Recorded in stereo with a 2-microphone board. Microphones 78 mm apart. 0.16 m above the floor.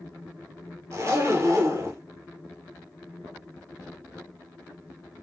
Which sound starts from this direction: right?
A zipper, at 0.9 s.